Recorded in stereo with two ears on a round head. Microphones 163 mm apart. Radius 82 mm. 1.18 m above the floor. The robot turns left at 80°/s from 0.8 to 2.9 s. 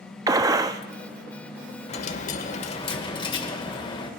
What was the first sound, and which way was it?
A gunshot, 20° right (ahead or behind).